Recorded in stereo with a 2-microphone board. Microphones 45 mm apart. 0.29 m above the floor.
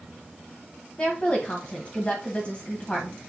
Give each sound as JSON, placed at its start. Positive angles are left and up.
{"t": 1.0, "sound": "a woman speaking", "side_deg": 30, "distance_m": 1.7}